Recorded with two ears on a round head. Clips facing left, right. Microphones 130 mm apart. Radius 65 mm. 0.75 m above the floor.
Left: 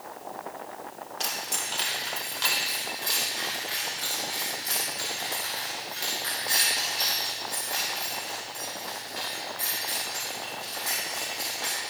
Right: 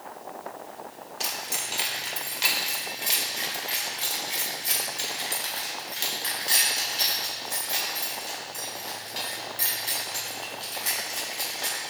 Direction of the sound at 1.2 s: 5° right (ahead or behind).